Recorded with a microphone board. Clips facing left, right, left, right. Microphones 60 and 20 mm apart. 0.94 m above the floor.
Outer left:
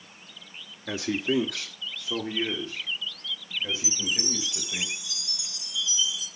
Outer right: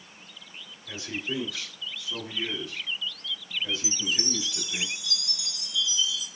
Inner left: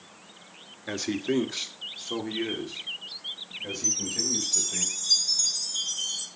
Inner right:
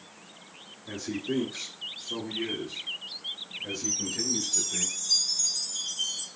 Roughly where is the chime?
Left.